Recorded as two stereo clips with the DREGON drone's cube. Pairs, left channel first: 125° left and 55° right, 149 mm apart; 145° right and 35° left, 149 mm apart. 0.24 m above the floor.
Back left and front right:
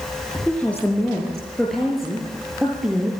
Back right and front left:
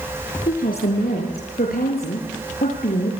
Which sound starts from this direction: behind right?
A woman speaking, at 0.5 s.